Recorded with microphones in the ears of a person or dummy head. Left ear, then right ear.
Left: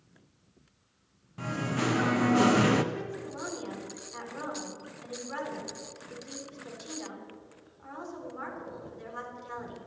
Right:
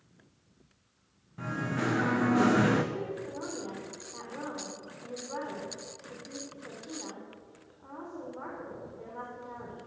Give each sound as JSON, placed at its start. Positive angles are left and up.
{"t": 1.4, "sound": "singing", "side_deg": 10, "distance_m": 0.9}
{"t": 2.9, "sound": "a woman speaking", "side_deg": 80, "distance_m": 3.5}